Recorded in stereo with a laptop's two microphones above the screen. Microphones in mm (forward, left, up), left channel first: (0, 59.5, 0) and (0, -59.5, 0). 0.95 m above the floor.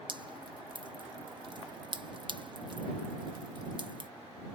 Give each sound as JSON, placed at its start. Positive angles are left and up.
{"t": 0.1, "sound": "dripping", "side_deg": -40}